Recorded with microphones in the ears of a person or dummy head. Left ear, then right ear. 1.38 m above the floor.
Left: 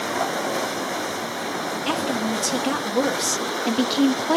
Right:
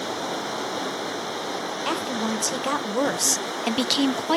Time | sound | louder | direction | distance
1.9 | a woman speaking | left 2 dB | 55° right (ahead or behind) | 2 m